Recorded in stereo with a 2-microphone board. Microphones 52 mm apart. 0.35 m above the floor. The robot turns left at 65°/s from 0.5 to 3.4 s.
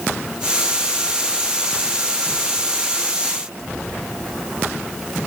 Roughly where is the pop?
I don't hear a pop.